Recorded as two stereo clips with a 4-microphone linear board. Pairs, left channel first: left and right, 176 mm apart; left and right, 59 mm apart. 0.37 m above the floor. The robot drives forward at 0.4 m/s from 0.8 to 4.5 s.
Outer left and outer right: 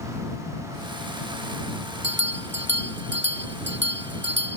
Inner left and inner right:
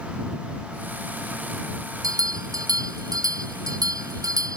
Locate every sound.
2.0 s a bell: 85° right; by 4.6 s 80° right